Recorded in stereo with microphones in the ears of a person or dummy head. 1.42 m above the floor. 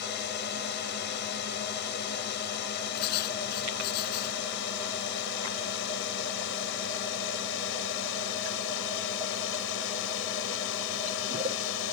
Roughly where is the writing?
Left.